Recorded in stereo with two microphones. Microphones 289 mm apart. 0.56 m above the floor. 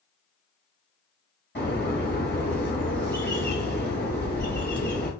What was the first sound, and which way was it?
A bird, 35° left (ahead or behind).